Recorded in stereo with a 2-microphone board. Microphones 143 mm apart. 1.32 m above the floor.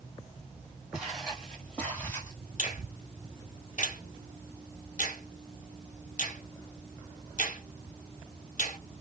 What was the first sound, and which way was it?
Footsteps, 5° right (ahead or behind).